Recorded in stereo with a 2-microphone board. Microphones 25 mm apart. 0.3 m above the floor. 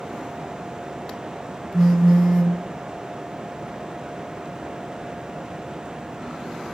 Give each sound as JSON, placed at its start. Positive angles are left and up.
{"t": 1.7, "sound": "a phone buzzing", "side_deg": -10, "distance_m": 1.1}